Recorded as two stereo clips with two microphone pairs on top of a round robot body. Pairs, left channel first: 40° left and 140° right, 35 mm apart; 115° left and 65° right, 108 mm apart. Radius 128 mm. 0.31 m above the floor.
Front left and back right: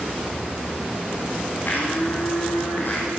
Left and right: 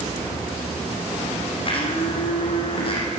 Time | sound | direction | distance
1.6 | a blender | 75° left | 6 m